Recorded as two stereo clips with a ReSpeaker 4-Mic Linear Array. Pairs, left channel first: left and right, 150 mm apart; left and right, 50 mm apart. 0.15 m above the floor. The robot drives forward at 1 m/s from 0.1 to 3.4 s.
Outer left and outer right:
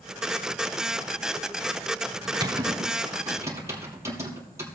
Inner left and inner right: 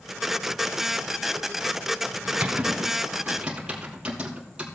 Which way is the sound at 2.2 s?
30° right (ahead or behind).